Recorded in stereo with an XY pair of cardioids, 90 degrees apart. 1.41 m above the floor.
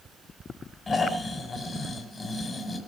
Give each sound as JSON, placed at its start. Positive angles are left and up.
{"t": 0.9, "sound": "snoring", "azimuth_deg": 45, "distance_m": 4.5}